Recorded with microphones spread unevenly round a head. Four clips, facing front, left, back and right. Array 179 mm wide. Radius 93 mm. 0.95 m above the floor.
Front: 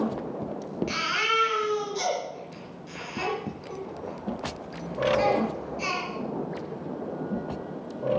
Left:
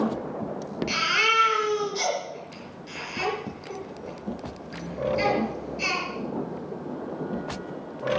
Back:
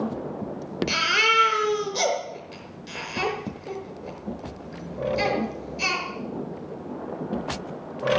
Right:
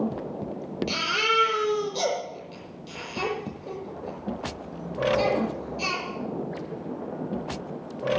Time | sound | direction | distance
0.9 | a baby crying | 140° right | 6 m